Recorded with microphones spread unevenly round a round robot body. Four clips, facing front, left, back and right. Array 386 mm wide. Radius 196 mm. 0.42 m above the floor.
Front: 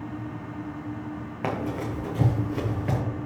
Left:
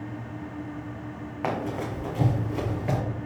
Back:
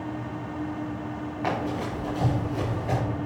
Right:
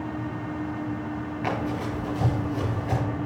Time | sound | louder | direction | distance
1.4 | running footsteps | even, even | 5° left | 2.5 m